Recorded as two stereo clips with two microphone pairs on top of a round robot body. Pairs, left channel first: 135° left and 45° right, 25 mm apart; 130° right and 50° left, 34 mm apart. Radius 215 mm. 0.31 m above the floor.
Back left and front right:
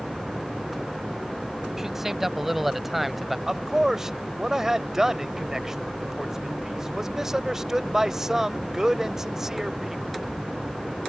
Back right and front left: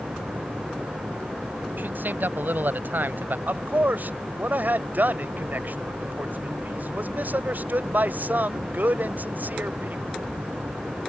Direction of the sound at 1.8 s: 30° left.